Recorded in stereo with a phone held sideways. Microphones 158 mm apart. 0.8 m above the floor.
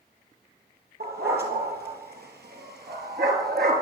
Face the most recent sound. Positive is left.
turn(degrees=-75)  # may be behind; listen again after turning